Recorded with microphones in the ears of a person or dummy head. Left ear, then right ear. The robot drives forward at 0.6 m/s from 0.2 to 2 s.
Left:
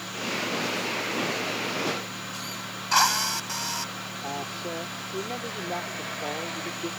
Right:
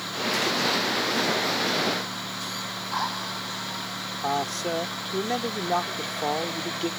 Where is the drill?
75° left (ahead or behind).